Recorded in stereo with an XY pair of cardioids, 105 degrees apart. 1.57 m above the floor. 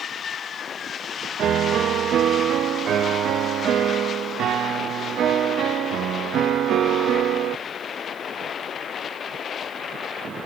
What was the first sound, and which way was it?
A piano, 70° right.